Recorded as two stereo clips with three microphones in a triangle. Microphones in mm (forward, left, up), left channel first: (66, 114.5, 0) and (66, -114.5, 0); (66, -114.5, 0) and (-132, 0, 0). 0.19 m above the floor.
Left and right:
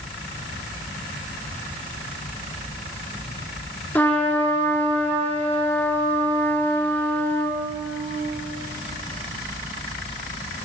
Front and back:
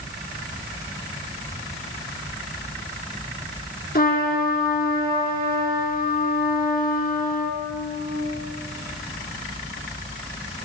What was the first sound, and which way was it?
A trumpet, 10° left.